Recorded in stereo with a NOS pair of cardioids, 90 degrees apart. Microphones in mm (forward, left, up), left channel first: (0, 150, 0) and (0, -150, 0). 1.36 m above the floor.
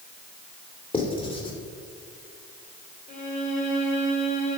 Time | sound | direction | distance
0.9 | writing | 20° left | 3 m
3.1 | a violin | 25° left | 2.5 m